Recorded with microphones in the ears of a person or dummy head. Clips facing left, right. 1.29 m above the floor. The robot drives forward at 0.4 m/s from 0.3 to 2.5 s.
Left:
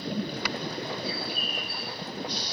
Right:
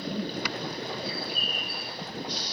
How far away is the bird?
About 4 m.